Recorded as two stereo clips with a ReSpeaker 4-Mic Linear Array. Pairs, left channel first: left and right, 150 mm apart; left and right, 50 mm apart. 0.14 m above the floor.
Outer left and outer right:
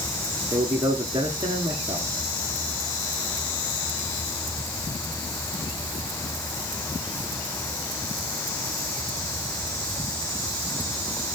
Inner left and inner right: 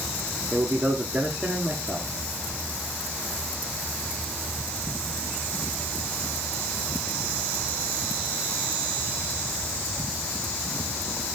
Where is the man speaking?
30° right (ahead or behind), 1.6 m.